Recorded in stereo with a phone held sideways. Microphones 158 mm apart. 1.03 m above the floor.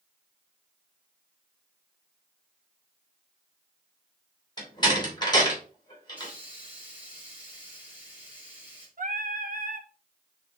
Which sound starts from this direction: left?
A door slam, at 4.6 s.